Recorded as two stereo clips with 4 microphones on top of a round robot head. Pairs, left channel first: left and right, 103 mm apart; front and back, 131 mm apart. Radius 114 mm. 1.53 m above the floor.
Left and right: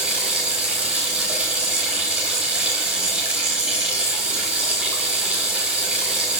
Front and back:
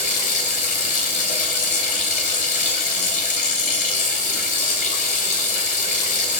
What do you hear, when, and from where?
0.0 s running water: 10° right, 5.5 m